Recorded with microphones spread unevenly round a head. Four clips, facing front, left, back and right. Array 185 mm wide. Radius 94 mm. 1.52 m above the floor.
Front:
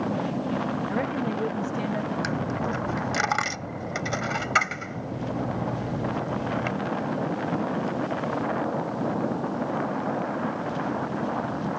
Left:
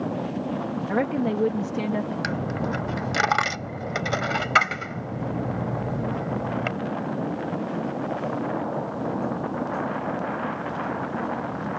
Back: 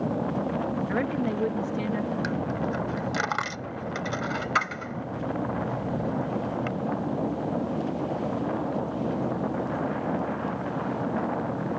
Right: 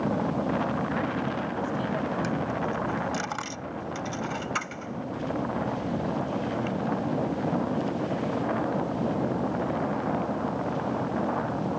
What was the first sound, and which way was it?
A woman speaking, 105° left.